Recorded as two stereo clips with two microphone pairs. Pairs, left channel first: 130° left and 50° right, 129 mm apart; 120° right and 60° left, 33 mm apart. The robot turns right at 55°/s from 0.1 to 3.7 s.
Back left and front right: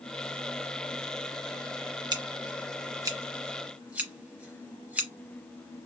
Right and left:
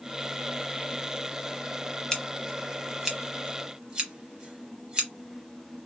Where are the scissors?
65° right, 1.0 m; by 5.1 s 20° left, 1.0 m.